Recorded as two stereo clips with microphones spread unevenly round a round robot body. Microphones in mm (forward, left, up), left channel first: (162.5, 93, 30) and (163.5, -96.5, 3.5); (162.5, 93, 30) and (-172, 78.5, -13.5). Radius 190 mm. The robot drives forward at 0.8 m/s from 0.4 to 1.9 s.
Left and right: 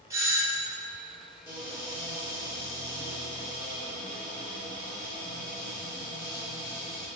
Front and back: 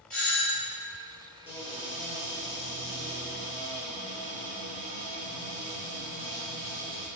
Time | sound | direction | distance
0.1 | a doorbell | 55° right | 1.2 m
1.5 | a cupboard door | 115° right | 1.1 m